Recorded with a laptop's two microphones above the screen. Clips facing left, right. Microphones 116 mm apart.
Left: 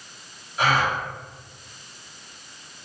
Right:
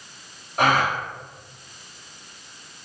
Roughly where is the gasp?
Right.